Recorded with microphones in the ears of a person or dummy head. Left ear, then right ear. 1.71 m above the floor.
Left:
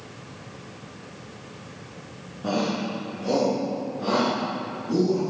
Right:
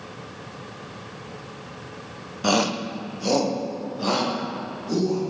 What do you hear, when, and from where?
2.4 s a shout: 70° right (ahead or behind), 0.5 m; by 5.2 s 75° right (ahead or behind), 2.5 m